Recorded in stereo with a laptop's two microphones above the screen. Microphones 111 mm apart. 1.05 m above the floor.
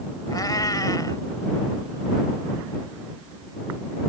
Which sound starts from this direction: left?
A cat meowing, at 0.3 s.